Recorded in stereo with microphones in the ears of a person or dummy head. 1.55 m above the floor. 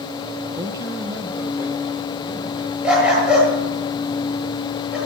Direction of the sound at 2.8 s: 5° right (ahead or behind).